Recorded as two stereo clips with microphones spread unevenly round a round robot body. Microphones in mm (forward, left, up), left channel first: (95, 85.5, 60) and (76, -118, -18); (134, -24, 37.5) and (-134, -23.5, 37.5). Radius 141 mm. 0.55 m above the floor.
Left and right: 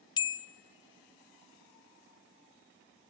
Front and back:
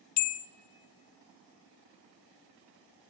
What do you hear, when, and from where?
0.2 s a bell: 30° left, 0.5 m